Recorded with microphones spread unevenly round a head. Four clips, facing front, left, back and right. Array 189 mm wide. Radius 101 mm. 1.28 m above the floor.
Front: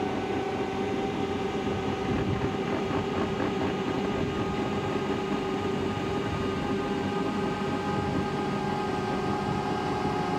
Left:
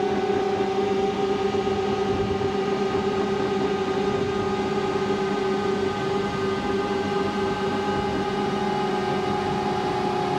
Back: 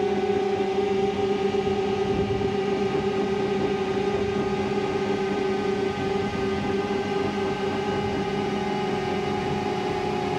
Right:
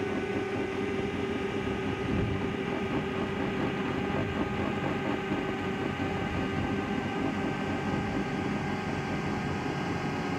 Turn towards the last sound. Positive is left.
turn(degrees=115)